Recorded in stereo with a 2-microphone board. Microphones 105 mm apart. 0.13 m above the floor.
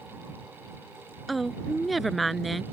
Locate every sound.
1.3 s a woman speaking: centre (ahead or behind)